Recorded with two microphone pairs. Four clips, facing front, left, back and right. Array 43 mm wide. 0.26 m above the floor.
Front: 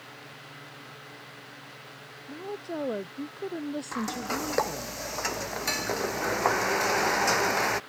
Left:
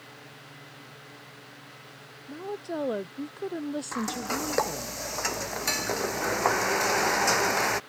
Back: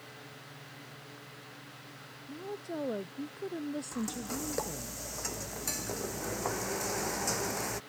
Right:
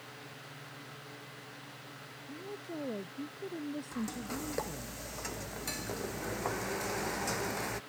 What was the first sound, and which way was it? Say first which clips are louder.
A woman speaking: left 9 dB, front 4 dB; 80° left.